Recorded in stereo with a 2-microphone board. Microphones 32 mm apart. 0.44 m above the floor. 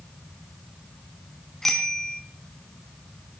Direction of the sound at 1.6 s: 15° left (ahead or behind).